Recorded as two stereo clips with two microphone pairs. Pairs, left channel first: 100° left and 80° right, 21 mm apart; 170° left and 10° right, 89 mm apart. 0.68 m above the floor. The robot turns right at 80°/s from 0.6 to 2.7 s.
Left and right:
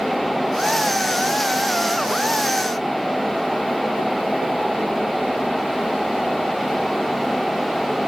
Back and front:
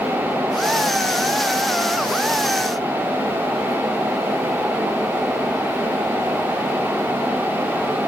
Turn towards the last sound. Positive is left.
No sound to turn to.